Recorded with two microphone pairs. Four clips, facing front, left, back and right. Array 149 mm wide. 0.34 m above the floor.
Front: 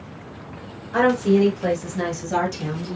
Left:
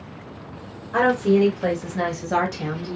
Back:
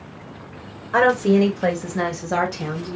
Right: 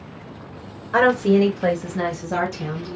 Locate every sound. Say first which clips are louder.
0.9 s a woman speaking: right 2 dB, back 1 dB; 130° right, 1.6 m; by 3.0 s 125° left, 2 m